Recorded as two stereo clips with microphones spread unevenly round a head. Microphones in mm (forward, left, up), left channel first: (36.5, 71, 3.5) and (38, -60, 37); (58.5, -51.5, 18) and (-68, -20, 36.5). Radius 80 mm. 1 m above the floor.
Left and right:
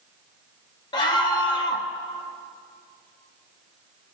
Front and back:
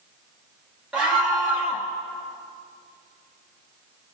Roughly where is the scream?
Left.